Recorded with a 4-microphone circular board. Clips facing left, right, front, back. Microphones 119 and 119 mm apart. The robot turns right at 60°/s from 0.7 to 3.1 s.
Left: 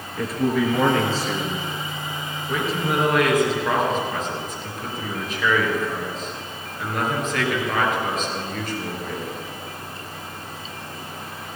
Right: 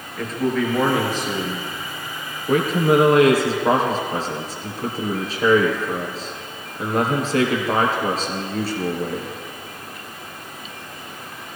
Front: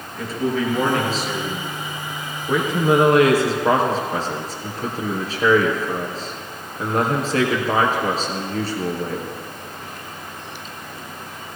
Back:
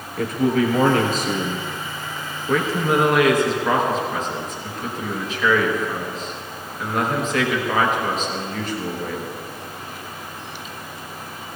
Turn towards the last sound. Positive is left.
turn(degrees=-45)